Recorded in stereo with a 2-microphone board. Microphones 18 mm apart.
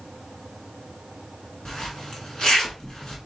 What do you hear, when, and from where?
1.6 s a zipper: 40° left (ahead or behind), 1.6 m